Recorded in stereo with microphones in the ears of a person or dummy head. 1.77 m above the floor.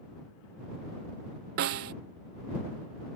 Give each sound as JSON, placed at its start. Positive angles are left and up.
{"t": 1.6, "sound": "a snare drum", "side_deg": -45}